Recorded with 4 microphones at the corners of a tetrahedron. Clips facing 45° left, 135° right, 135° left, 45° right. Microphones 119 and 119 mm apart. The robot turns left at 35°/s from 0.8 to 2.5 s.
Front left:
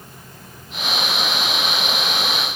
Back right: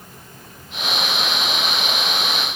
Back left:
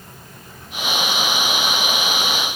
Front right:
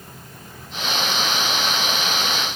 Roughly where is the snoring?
No snoring in this recording.